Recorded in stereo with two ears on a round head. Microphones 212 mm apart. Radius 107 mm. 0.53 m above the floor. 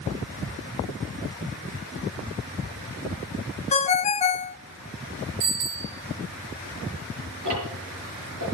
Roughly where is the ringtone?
Left.